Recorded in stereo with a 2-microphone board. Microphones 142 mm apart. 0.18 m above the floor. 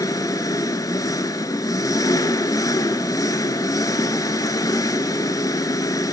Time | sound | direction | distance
0.0 | an engine running | 25° left (ahead or behind) | 0.9 m